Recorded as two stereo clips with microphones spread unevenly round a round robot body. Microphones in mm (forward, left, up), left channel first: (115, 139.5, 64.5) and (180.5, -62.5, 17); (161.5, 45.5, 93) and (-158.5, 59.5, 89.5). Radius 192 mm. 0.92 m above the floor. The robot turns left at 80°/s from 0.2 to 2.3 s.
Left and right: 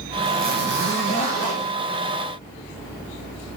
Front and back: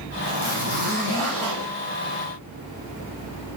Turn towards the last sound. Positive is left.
turn(degrees=-170)